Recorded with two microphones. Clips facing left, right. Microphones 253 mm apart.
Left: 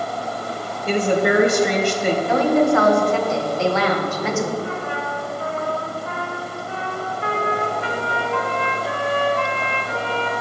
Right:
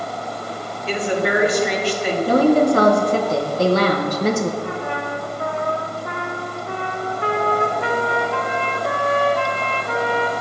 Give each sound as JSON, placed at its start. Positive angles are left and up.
{"t": 0.9, "sound": "a woman speaking", "side_deg": 45, "distance_m": 1.8}
{"t": 2.3, "sound": "a woman speaking", "side_deg": -40, "distance_m": 1.4}
{"t": 4.6, "sound": "a trumpet", "side_deg": -60, "distance_m": 1.3}